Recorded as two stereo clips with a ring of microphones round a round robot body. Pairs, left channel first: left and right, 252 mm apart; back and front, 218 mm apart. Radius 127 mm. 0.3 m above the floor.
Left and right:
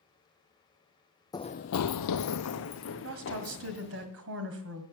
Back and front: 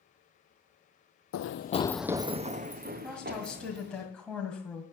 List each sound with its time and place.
1.3 s running footsteps: 165° left, 0.7 m; by 4.0 s 40° left, 2.5 m
3.0 s a woman speaking: 95° right, 2 m